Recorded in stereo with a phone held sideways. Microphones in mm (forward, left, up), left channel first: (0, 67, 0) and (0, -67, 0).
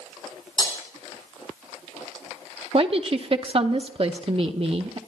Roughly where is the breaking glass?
Left.